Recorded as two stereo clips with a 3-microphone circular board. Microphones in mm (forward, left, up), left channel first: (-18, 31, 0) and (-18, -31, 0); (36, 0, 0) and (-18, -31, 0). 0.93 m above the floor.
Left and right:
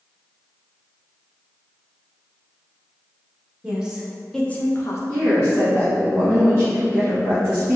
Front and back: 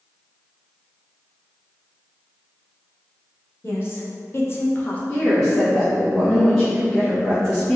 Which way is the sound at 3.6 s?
20° right.